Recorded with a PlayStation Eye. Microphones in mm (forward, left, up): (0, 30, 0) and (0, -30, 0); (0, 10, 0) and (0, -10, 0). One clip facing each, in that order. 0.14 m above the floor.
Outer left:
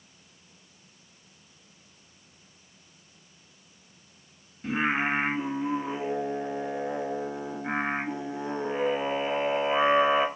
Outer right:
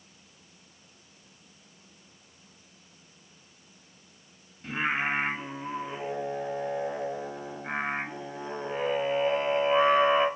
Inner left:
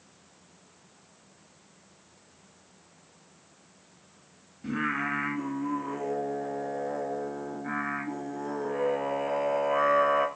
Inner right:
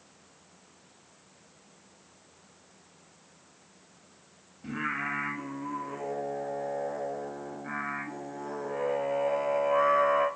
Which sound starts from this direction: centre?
Singing, at 4.6 s.